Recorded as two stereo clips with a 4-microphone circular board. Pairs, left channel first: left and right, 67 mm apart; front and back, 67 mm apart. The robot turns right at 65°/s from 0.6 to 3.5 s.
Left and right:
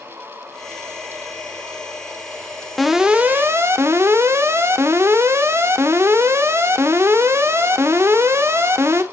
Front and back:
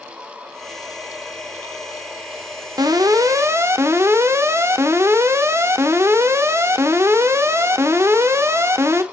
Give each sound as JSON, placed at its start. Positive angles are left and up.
{"t": 2.8, "sound": "an alarm", "azimuth_deg": 180, "distance_m": 0.7}